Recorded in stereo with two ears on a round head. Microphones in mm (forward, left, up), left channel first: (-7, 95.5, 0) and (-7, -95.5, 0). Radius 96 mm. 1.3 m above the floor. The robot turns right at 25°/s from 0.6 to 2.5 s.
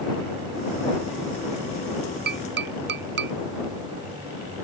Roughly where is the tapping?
Right.